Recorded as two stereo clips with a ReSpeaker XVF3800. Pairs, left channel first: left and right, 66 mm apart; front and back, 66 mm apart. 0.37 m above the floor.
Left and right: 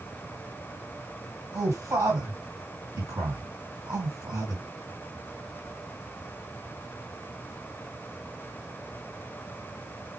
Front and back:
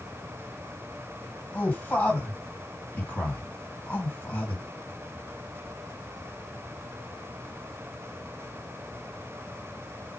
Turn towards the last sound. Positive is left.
turn(degrees=-60)